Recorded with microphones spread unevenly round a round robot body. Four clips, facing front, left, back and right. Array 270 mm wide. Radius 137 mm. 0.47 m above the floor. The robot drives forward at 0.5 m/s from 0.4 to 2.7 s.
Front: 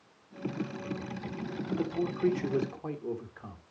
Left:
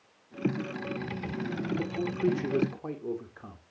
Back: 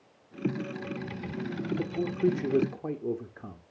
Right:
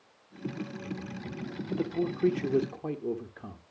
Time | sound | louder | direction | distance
1.7 | a man speaking | right 5 dB, front 1 dB | 115° right | 1.4 m